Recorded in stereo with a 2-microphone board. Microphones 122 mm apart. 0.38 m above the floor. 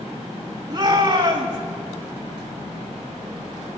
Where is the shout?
35° right (ahead or behind), 2.5 m.